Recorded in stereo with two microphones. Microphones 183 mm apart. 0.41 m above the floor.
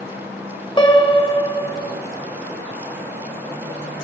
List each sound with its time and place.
0.8 s a piano: 25° left (ahead or behind), 0.7 m